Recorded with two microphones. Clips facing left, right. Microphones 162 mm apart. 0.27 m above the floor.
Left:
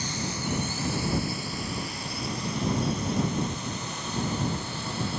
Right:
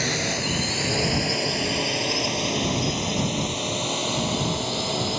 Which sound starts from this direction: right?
A drone, at 0.0 s.